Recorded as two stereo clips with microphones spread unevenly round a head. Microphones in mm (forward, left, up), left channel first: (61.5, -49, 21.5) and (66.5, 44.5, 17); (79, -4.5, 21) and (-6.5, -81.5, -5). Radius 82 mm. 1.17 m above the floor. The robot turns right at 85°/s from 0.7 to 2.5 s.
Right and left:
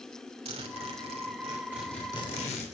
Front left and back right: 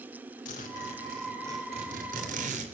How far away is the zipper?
About 3 m.